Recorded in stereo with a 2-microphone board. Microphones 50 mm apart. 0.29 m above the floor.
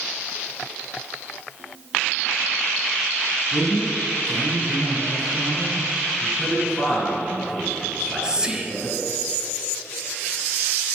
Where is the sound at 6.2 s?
10° left (ahead or behind), 4 m.